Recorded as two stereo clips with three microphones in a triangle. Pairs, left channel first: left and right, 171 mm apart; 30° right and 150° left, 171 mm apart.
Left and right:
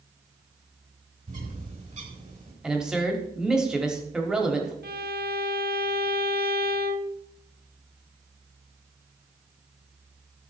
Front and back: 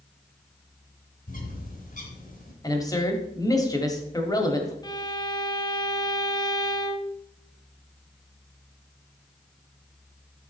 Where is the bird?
55° right, 3 m.